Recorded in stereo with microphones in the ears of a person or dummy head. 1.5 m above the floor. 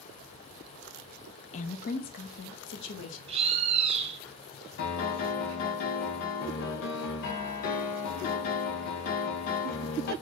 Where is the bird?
30° right (ahead or behind), 0.8 m.